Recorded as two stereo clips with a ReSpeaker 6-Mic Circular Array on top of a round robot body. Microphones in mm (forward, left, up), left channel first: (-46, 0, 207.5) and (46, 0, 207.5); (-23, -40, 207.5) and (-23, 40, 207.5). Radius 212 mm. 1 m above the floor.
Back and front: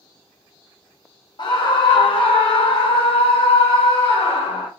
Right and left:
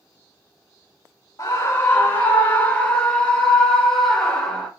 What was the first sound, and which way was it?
A scream, 140° right.